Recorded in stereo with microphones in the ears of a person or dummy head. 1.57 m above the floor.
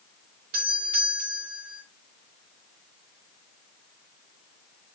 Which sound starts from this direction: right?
A doorbell, at 0.5 s.